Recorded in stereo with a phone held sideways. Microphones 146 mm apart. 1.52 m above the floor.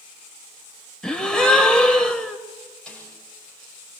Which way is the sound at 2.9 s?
5° left (ahead or behind).